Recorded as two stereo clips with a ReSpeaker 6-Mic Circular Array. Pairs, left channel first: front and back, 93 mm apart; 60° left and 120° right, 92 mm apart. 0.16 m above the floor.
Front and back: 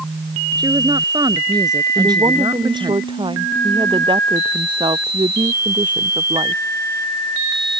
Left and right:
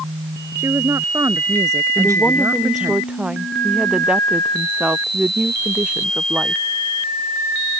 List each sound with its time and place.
0.6 s a woman speaking: 165° right
1.9 s a woman speaking: 160° left